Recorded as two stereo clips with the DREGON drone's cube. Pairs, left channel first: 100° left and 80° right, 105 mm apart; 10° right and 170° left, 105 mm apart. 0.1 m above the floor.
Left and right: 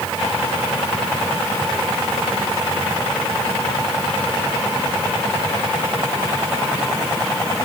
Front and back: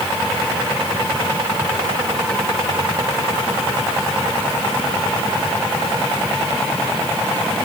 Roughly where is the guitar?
No guitar in this recording.